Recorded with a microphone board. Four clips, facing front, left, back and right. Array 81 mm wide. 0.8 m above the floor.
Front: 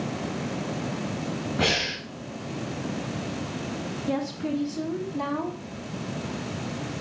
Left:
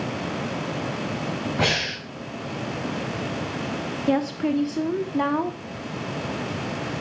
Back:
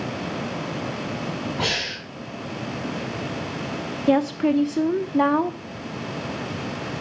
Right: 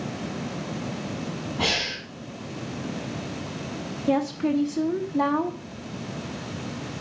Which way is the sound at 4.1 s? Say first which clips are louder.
Even, back 10 dB; 160° left.